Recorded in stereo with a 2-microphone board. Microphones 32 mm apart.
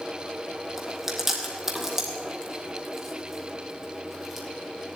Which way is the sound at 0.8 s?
10° right (ahead or behind).